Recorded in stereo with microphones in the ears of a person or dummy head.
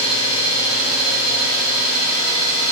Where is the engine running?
30° left (ahead or behind), 1.7 m.